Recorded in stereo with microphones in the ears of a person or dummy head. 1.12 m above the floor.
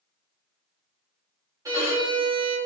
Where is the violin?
10° right (ahead or behind), 0.8 m.